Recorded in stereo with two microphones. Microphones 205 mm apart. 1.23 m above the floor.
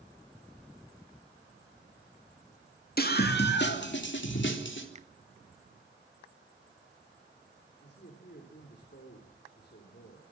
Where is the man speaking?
55° left (ahead or behind), 3.5 m.